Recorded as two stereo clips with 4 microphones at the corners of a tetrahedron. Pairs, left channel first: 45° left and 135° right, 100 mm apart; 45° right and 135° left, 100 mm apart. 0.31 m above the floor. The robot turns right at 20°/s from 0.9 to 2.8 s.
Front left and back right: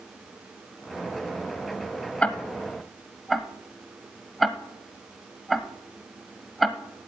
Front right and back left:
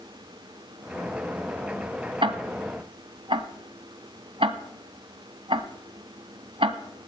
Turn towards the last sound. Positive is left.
turn(degrees=135)